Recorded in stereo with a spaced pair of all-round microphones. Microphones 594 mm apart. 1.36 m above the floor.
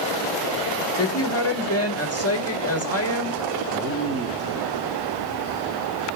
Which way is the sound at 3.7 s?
25° right (ahead or behind).